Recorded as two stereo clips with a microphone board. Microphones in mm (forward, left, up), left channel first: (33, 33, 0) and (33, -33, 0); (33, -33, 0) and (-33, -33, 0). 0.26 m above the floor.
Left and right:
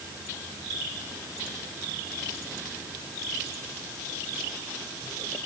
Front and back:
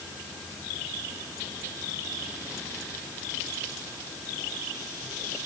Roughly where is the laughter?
No laughter in this recording.